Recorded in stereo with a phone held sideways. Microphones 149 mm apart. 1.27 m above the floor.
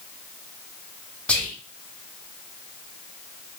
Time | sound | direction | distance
1.3 | whispering | 10° left (ahead or behind) | 0.7 m